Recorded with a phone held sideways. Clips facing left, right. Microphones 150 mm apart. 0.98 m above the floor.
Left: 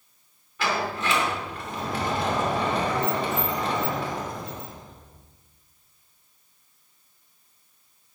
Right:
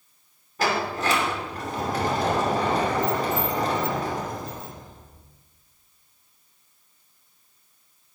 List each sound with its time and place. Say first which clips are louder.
0.6 s a sliding door: right 2 dB; 40° right (ahead or behind), 2.5 m